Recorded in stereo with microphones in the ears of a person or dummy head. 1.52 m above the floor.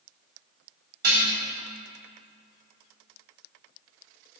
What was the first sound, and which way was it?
Dishes clattering, 65° right (ahead or behind).